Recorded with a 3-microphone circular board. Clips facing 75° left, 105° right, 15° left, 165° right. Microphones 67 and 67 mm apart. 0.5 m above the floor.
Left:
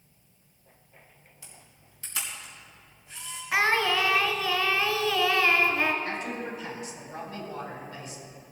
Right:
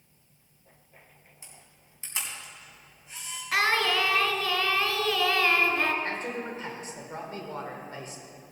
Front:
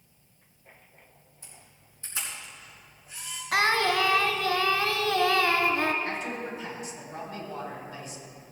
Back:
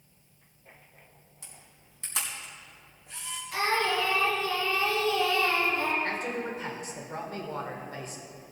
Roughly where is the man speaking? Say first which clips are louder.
Even, back 1 dB; behind right.